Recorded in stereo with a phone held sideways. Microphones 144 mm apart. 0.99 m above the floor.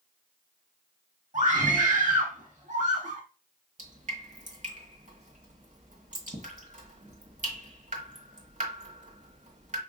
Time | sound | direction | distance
1.3 | a scream | 60° right (ahead or behind) | 1.5 m
3.8 | dripping | 60° right (ahead or behind) | 1.4 m